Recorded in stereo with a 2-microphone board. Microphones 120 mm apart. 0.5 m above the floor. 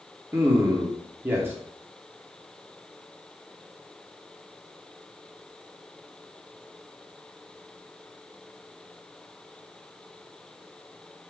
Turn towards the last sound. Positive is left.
turn(degrees=-20)  # may be behind; listen again after turning